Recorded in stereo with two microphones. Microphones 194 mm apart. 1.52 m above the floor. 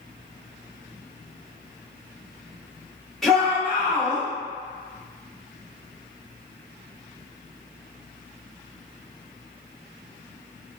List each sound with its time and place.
3.2 s a shout: centre (ahead or behind), 1.5 m; by 4.2 s 25° right (ahead or behind), 1.1 m